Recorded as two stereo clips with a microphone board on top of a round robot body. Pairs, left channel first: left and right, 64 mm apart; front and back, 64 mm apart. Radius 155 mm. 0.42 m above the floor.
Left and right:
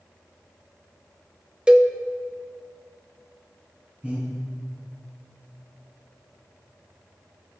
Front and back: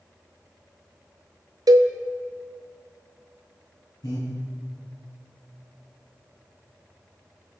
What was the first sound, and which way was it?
A cowbell, 165° right.